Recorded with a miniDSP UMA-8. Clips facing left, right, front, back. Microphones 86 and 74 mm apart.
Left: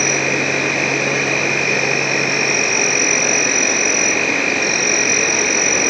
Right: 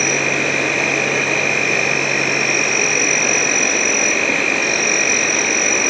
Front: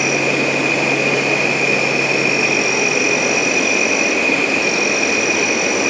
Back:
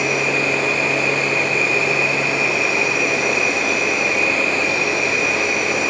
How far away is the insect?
About 2.0 m.